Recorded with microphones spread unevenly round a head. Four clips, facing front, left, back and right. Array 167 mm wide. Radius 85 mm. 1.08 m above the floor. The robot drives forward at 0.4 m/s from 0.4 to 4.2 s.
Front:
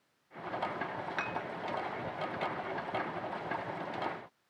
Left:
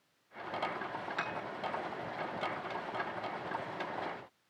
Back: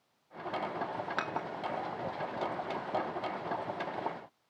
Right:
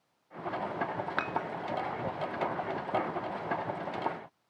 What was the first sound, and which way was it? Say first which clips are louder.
Dishes clattering: right 6 dB, back 1 dB; 120° right.